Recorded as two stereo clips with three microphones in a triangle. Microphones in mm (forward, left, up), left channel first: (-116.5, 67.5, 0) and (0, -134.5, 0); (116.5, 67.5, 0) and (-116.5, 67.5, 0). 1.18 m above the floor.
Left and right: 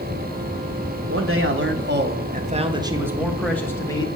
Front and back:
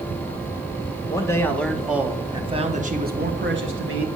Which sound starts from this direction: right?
A man speaking, at 1.1 s.